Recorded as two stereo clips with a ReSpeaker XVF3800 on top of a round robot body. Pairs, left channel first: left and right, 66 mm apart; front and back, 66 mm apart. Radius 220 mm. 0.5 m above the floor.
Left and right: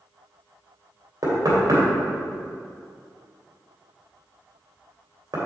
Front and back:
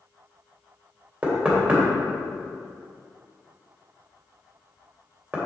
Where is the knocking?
115° right, 2.5 m.